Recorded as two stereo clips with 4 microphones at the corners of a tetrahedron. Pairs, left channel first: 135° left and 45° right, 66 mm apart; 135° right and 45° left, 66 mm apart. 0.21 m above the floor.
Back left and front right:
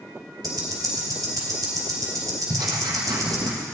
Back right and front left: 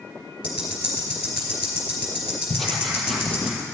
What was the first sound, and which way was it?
Ticking, 30° right.